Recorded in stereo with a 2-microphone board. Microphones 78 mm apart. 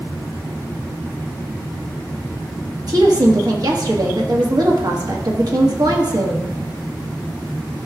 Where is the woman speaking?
55° right (ahead or behind), 1.3 m.